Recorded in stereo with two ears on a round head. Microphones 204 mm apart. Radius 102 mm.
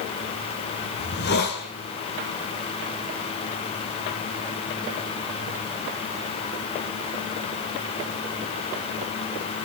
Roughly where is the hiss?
Left.